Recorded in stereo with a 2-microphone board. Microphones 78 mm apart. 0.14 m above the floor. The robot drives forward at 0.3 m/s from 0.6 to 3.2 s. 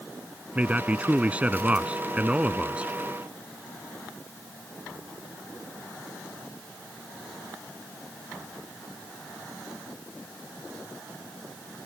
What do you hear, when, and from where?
0.6 s a man speaking: 20° right (ahead or behind); by 2.9 s 15° right (ahead or behind)